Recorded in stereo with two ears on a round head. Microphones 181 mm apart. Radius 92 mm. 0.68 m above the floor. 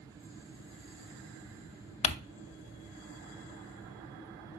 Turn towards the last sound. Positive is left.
turn(degrees=30)  # may be behind; listen again after turning